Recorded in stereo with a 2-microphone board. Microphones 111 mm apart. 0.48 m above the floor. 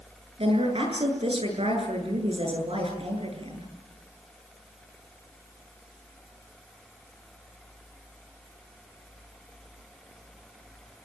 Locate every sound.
0.4 s a woman speaking: 55° right (ahead or behind), 8 m